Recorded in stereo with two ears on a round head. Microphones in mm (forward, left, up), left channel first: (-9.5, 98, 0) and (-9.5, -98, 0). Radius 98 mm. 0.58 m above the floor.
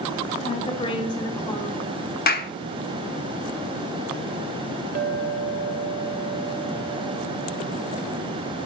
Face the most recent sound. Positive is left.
turn(degrees=-40)  # may be behind; listen again after turning